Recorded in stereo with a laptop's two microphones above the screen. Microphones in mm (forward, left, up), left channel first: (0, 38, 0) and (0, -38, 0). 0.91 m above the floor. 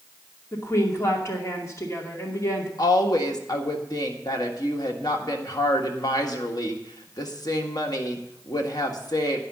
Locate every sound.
0.5 s a woman speaking: 40° left (ahead or behind), 2.5 m
2.8 s a woman speaking: 60° left (ahead or behind), 1.6 m